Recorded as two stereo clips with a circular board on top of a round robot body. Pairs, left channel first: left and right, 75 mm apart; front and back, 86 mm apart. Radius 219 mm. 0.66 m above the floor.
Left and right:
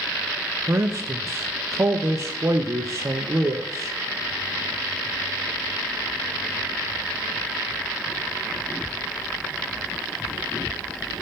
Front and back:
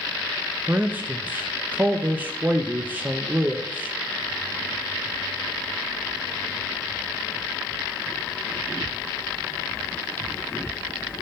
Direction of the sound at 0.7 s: 120° right.